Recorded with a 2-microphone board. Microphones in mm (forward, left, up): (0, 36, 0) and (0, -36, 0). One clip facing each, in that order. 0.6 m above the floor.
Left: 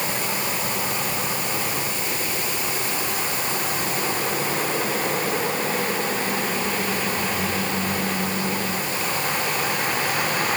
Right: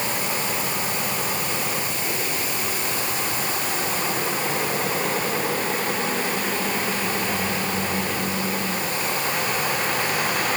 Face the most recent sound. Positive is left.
No sound to turn to.